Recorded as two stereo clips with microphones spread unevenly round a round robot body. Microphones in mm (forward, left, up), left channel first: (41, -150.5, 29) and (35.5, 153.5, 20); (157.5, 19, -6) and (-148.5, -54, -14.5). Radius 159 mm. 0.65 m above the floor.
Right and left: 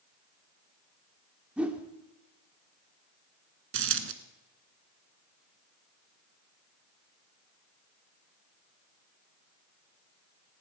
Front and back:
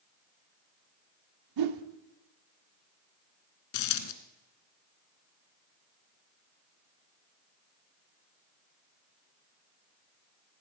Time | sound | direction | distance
1.6 | a whoosh | 175° left | 0.9 m
3.7 | a dropped coin | 45° left | 1.2 m